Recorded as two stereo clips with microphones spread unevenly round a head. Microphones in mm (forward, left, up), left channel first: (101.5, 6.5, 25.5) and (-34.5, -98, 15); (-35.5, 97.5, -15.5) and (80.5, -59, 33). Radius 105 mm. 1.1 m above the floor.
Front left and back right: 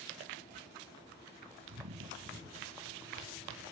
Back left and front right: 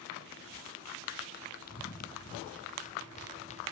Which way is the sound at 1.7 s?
Straight behind.